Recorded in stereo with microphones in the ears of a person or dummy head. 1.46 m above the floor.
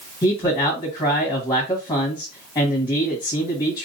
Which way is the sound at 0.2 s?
20° left (ahead or behind).